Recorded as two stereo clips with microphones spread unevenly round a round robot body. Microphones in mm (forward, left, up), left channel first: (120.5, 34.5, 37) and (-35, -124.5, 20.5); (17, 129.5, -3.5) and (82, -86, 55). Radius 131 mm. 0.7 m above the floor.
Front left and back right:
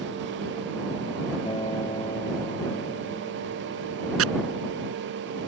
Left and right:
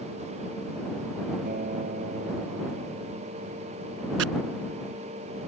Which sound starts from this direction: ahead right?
A guitar, at 1.4 s.